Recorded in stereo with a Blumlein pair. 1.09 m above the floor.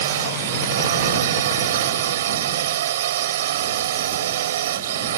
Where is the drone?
60° right.